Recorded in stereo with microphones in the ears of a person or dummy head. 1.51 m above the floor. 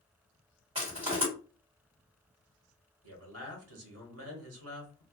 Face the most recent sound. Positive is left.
turn(degrees=-80)